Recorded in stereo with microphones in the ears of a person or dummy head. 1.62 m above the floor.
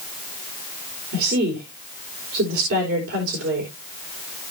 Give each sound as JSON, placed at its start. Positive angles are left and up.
{"t": 1.1, "sound": "a woman speaking", "side_deg": -60, "distance_m": 4.0}